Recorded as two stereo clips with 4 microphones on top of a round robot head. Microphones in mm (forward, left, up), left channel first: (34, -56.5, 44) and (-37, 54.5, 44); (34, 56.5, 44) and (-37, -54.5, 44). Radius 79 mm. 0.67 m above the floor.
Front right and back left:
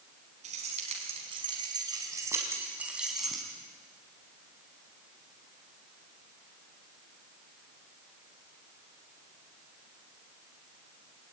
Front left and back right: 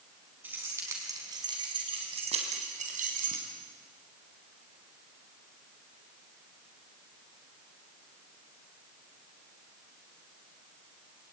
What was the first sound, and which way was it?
Keys jangling, 160° left.